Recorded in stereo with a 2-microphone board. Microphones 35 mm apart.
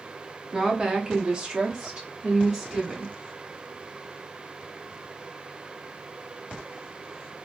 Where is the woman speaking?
15° right (ahead or behind), 0.8 m.